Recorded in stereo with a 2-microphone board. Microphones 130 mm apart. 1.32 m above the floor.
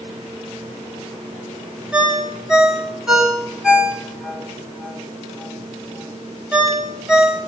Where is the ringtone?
5° right (ahead or behind), 2.5 m.